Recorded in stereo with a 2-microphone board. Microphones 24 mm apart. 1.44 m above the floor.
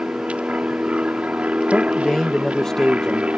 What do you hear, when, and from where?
0.0 s an aircraft: 70° right (ahead or behind)
1.7 s a man speaking: 30° left (ahead or behind)